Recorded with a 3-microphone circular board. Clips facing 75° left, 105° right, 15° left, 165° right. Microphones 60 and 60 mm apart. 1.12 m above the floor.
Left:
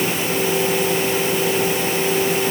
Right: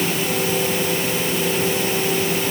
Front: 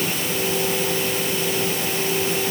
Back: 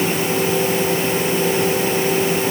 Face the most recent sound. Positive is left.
No sound to turn to.